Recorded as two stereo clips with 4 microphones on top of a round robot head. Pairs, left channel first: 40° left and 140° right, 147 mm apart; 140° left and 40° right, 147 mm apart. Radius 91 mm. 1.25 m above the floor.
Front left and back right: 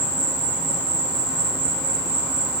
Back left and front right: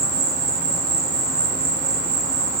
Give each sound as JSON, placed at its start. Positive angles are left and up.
{"t": 0.0, "sound": "an insect", "azimuth_deg": -65, "distance_m": 2.5}